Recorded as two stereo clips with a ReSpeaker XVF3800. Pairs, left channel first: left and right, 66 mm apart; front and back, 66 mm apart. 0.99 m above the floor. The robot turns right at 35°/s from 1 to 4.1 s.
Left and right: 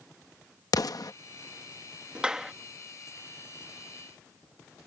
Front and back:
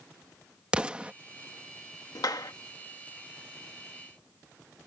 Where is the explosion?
105° left; by 1.1 s 110° left.